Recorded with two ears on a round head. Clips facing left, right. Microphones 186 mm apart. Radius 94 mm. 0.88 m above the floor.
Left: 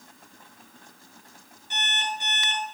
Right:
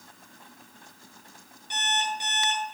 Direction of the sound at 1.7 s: 60° right (ahead or behind).